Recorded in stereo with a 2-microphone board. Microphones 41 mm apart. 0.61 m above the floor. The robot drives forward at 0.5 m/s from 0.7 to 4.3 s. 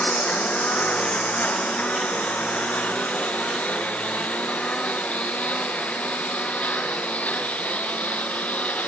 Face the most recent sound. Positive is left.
turn(degrees=35)  # may be behind; listen again after turning